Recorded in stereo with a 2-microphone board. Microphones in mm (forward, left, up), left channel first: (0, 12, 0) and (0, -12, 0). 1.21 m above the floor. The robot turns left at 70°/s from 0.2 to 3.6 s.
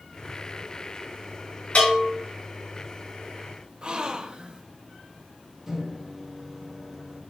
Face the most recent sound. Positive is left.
turn(degrees=-20)  # may be behind; listen again after turning